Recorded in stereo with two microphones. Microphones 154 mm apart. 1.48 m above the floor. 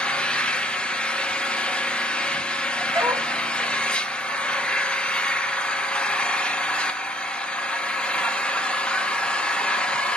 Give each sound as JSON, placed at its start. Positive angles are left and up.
{"t": 0.0, "sound": "an engine running", "side_deg": 5, "distance_m": 0.8}
{"t": 2.9, "sound": "a dog barking", "side_deg": -20, "distance_m": 1.2}